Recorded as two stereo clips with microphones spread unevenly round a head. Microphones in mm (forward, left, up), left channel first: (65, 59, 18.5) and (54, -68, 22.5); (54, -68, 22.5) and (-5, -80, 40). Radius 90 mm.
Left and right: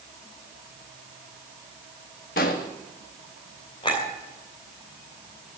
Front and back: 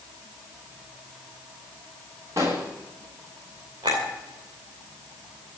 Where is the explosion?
125° left, 1.2 m.